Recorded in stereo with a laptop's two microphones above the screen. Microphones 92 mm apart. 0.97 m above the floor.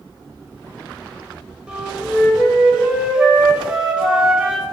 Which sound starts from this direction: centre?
A flute, at 1.7 s.